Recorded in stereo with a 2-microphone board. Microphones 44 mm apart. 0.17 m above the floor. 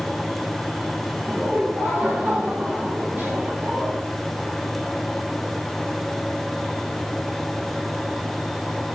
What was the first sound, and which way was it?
Laughter, 25° right (ahead or behind).